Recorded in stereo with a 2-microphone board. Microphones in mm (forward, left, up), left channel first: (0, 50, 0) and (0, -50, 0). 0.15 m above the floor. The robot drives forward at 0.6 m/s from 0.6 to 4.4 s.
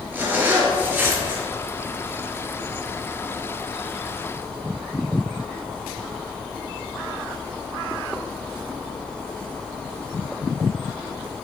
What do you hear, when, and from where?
0.1 s a zipper: 20° right (ahead or behind), 3 m; by 1.4 s 25° right (ahead or behind), 3 m